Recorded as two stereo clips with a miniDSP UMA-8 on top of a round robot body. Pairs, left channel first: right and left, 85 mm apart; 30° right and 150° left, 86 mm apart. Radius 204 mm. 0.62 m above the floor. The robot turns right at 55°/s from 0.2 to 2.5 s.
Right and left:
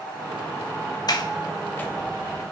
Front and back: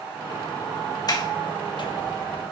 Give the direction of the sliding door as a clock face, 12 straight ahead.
2 o'clock.